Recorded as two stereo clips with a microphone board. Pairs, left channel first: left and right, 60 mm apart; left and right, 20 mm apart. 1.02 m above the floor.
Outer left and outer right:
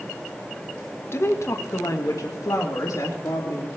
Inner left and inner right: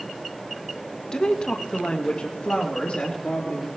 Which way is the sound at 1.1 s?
45° left (ahead or behind).